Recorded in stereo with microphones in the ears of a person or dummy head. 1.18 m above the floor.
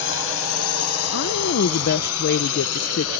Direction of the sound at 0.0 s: 60° left (ahead or behind).